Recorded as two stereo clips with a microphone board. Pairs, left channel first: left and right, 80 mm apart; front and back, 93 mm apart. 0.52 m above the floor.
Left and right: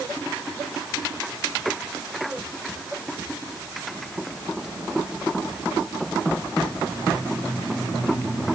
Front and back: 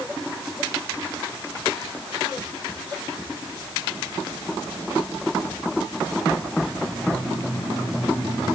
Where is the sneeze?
I don't hear a sneeze.